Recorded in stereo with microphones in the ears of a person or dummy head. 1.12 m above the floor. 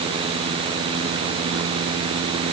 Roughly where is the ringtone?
I don't hear a ringtone.